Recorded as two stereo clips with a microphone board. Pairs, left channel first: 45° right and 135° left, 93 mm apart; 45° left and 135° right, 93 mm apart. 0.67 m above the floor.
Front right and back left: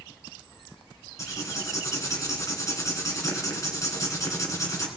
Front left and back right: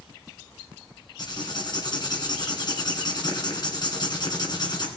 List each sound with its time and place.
1.2 s writing: 10° left, 2.0 m